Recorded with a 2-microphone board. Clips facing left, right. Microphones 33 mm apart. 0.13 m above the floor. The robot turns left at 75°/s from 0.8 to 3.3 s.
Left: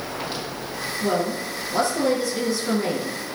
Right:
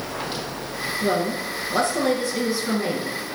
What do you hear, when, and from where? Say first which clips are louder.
1.0 s a woman speaking: even; 35° right, 2.5 m; by 3.1 s 165° left, 2.5 m